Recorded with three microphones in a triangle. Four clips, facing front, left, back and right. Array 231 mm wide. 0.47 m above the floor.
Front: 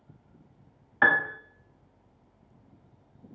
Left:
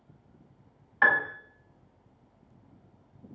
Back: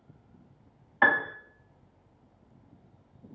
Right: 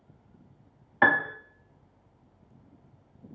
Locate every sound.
1.0 s a piano: 75° right, 0.7 m